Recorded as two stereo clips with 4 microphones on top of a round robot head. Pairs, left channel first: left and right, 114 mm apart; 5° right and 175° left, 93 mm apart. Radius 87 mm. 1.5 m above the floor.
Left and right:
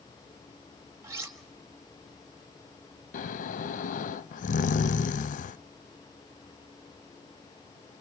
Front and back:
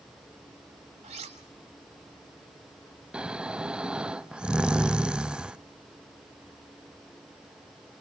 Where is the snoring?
95° left, 0.6 m.